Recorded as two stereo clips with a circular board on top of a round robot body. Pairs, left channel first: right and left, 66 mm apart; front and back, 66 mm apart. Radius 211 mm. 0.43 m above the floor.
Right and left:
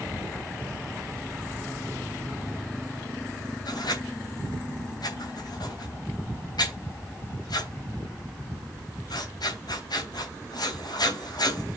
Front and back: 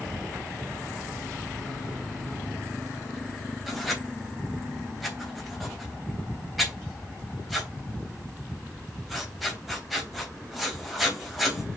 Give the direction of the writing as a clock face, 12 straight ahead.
3 o'clock.